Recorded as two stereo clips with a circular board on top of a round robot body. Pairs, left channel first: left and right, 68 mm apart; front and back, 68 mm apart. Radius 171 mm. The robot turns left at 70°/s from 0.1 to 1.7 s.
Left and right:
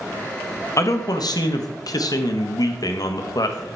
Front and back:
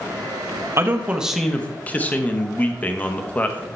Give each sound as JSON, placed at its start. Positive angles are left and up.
{"t": 0.8, "sound": "a man speaking", "azimuth_deg": 135, "distance_m": 1.1}